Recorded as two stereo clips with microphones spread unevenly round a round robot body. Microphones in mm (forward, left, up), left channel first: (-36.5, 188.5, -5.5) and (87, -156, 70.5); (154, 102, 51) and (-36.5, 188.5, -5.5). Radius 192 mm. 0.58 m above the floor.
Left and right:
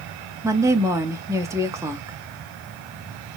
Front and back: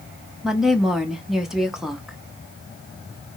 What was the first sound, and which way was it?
A woman speaking, 170° right.